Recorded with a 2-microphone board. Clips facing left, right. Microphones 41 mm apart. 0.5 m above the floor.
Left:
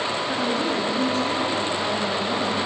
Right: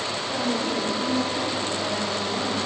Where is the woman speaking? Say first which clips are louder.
Even; 65° left (ahead or behind), 6.5 m; by 2.6 s 55° left (ahead or behind), 4.5 m.